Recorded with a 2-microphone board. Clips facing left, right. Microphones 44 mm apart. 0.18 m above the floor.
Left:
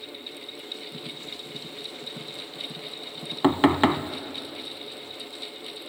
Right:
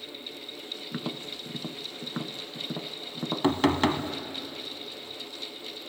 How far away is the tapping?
About 0.5 m.